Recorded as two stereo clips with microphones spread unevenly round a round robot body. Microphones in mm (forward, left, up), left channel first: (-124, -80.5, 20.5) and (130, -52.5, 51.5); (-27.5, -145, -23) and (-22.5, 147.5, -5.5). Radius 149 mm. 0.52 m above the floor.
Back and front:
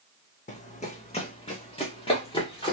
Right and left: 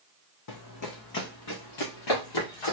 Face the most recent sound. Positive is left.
turn(degrees=-100)